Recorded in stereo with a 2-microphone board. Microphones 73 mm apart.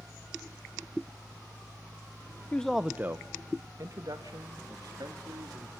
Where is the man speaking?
15° left (ahead or behind), 0.6 m; by 5.7 s 70° right (ahead or behind), 3 m.